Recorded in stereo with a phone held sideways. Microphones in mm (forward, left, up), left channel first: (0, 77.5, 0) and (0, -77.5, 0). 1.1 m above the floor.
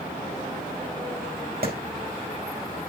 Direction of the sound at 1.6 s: 80° right.